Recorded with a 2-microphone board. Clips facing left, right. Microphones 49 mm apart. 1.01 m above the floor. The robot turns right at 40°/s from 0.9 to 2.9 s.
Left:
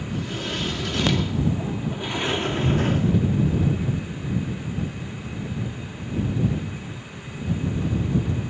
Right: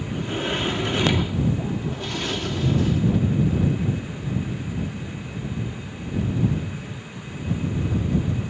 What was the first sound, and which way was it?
A sliding door, 25° right.